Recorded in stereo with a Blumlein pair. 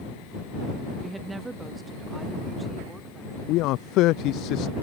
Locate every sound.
1.0 s a woman speaking: 10° right
3.5 s a man speaking: 40° left